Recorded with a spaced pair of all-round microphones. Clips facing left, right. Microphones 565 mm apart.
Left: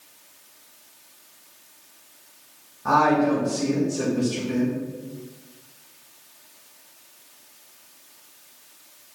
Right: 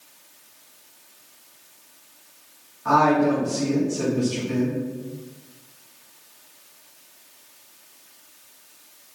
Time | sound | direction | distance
2.9 | a woman speaking | 60° left (ahead or behind) | 2.5 m